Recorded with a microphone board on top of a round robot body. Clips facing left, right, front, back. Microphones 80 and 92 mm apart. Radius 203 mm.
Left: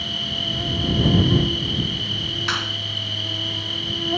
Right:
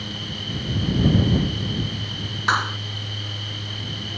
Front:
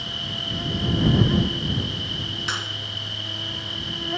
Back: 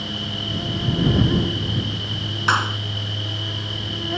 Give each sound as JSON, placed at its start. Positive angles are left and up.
{"t": 0.0, "sound": "an insect", "azimuth_deg": 90}
{"t": 2.5, "sound": "a clap", "azimuth_deg": -145}